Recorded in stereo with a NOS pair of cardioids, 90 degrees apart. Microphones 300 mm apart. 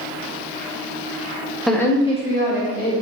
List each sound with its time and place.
1.7 s a woman speaking: straight ahead, 0.8 m; by 2.9 s 35° left, 1.8 m